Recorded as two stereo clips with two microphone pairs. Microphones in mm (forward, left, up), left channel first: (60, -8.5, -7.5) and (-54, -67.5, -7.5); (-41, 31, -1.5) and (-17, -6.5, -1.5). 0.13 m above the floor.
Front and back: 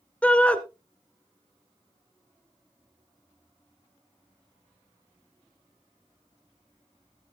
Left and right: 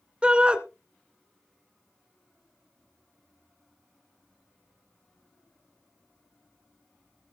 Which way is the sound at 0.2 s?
40° right.